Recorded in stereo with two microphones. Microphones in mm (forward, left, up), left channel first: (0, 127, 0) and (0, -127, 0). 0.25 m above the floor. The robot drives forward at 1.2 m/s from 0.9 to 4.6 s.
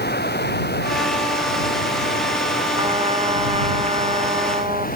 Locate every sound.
0.0 s running water: 40° left (ahead or behind); by 5.0 s 35° left (ahead or behind)
2.8 s a trumpet: 20° right (ahead or behind); by 4.9 s 25° right (ahead or behind)